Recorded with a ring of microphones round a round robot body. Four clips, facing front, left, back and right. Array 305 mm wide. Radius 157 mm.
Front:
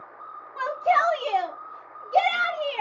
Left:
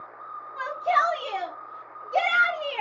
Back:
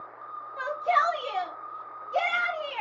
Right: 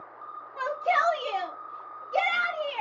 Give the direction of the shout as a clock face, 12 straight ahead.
1 o'clock.